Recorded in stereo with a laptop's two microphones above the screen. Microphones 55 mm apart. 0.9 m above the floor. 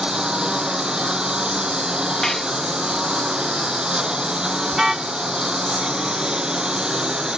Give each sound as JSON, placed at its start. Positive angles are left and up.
{"t": 0.0, "sound": "a lawn mower", "side_deg": -15}
{"t": 2.2, "sound": "dishes clattering", "side_deg": 10}
{"t": 4.7, "sound": "a car horn", "side_deg": -5}